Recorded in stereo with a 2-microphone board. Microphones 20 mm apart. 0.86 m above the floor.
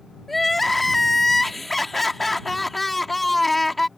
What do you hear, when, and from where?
0.3 s crying: 5° left (ahead or behind)